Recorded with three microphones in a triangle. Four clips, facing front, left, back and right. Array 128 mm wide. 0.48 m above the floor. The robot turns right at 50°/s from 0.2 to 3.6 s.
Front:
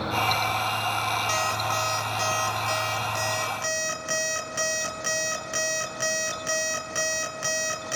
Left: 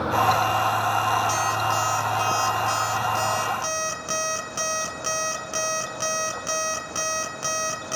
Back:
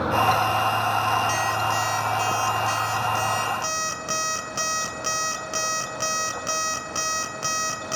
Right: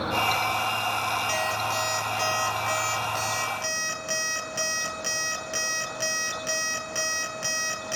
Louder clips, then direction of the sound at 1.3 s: Left 4 dB, back 3 dB; 30° left.